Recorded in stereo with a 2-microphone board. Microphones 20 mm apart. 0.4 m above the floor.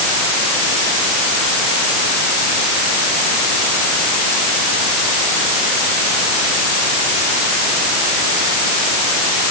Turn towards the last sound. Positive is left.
No sound to turn to.